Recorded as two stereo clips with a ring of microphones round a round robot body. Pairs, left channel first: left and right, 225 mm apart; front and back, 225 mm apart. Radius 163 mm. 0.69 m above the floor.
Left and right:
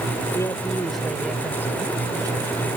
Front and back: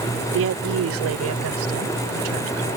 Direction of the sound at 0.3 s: 170° left.